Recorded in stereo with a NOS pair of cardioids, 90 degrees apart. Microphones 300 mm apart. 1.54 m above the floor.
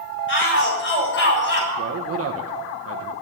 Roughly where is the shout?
Ahead left.